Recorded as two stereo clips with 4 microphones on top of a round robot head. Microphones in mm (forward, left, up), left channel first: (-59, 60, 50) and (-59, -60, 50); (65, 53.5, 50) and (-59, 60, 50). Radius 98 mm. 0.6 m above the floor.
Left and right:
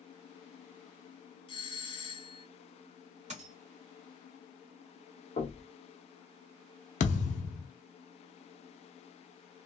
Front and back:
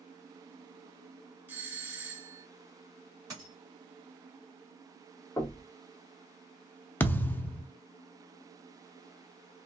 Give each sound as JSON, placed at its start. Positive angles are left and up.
{"t": 1.5, "sound": "a doorbell", "azimuth_deg": 105, "distance_m": 1.3}
{"t": 3.3, "sound": "a dropped coin", "azimuth_deg": -115, "distance_m": 1.9}
{"t": 5.4, "sound": "knocking", "azimuth_deg": 60, "distance_m": 1.2}
{"t": 7.0, "sound": "a thud", "azimuth_deg": 70, "distance_m": 0.7}